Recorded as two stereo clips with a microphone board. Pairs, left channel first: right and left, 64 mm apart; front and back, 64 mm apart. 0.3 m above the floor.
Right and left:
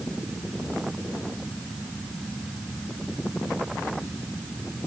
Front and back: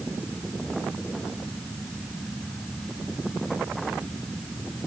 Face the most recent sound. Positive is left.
No sound to turn to.